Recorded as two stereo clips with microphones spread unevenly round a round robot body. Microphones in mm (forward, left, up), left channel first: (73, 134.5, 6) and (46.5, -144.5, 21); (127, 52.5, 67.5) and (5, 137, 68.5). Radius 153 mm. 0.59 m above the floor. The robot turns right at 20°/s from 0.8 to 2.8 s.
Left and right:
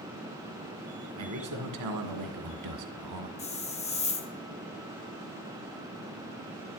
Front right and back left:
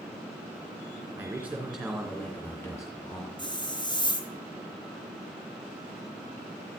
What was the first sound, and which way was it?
A man speaking, 140° right.